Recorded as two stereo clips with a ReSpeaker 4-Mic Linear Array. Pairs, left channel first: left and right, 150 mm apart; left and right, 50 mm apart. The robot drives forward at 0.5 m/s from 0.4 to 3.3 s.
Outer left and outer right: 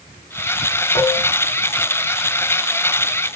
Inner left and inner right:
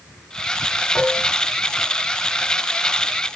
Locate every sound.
0.9 s dishes clattering: 30° left (ahead or behind), 1.1 m